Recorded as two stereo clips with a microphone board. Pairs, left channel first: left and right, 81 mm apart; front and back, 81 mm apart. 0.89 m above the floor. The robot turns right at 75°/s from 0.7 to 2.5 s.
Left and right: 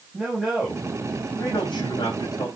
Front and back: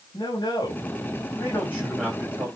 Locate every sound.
0.1 s a man speaking: 10° right, 4 m; by 2.5 s 125° left, 4 m